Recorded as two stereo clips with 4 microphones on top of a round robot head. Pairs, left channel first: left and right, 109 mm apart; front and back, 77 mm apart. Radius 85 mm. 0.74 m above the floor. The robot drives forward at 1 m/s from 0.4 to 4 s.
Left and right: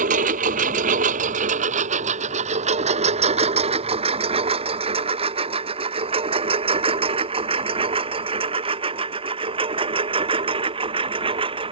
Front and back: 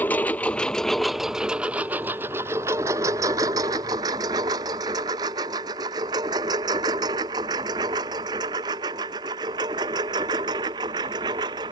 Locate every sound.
0.0 s a lawn mower: 75° right; by 11.7 s 130° right